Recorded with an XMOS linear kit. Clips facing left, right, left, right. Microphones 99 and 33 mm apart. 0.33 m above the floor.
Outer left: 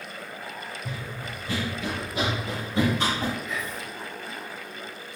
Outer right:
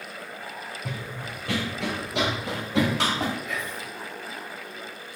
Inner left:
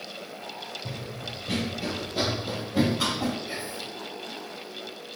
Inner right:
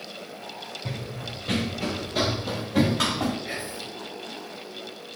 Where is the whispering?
65° right (ahead or behind), 4.5 m.